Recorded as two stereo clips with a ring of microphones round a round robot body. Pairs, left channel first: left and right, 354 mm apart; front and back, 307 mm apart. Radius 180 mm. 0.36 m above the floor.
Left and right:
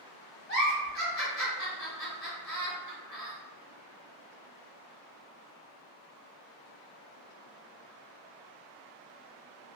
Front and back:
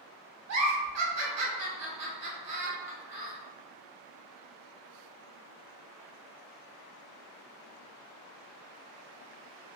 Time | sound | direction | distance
0.5 | a giggle | 145° left | 1.3 m